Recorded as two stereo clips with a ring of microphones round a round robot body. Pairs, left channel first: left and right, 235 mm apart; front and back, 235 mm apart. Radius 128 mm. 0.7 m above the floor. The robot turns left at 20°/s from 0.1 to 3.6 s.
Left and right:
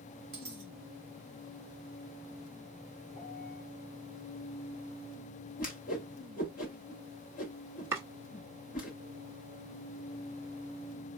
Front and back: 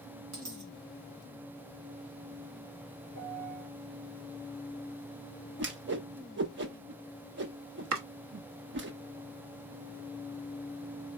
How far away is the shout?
No shout in this recording.